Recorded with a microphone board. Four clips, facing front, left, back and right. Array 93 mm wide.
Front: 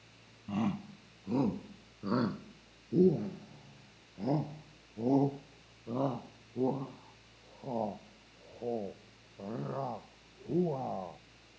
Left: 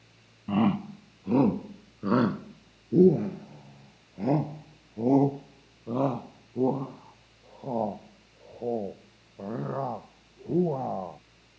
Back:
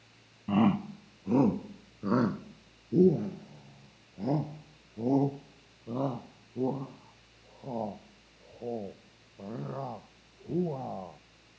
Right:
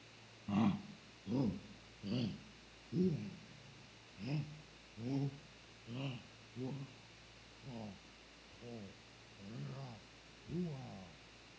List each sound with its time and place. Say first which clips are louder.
0.5 s a shout: left 11 dB, back 9 dB; 135° left; by 11.2 s 85° left